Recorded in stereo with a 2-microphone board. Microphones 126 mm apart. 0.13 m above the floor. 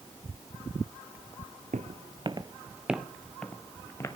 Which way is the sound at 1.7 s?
65° right (ahead or behind).